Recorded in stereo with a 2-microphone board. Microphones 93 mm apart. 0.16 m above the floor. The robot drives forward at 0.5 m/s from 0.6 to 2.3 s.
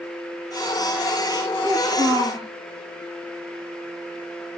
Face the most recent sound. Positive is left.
turn(degrees=-70)  # may be behind; listen again after turning